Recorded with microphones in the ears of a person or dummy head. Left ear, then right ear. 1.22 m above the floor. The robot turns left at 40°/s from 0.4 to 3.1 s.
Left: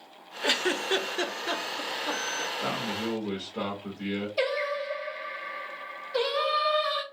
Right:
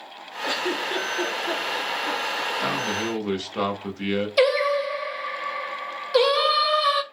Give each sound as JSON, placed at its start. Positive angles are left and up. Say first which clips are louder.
{"t": 0.4, "sound": "a giggle", "louder": "right 1 dB", "side_deg": 60, "distance_m": 0.7}
{"t": 2.6, "sound": "a man speaking", "louder": "right 6 dB", "side_deg": -50, "distance_m": 1.2}
{"t": 4.4, "sound": "singing", "louder": "right 9 dB", "side_deg": -50, "distance_m": 0.7}